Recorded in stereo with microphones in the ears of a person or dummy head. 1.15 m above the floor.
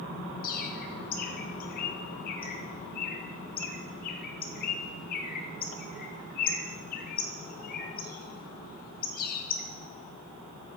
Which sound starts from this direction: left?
A bird, at 0.4 s.